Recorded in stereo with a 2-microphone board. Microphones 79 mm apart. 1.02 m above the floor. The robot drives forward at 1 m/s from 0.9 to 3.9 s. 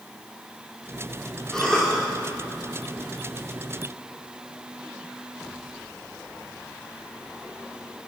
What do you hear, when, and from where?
1.5 s a cough: 10° left (ahead or behind), 2.5 m